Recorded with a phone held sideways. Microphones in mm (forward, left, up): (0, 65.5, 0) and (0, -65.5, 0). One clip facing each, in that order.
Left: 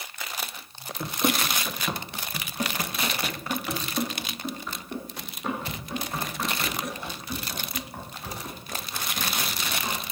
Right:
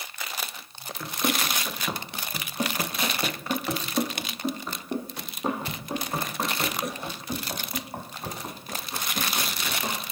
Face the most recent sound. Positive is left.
turn(degrees=-45)  # may be behind; listen again after turning